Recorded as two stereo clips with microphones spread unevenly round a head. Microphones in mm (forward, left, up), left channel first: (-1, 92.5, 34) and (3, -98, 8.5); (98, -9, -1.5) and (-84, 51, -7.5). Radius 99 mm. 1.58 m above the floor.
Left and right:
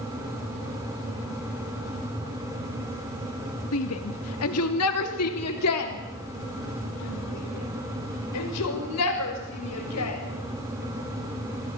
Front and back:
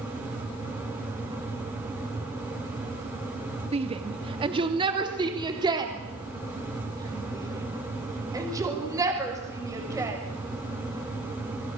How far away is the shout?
About 2 m.